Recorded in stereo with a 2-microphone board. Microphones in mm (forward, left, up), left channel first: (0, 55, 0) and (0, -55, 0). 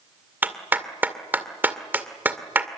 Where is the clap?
15° right (ahead or behind), 2 m.